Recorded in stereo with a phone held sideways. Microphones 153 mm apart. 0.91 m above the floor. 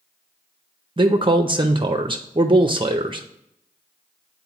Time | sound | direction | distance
1.0 | a man speaking | 35° right (ahead or behind) | 0.5 m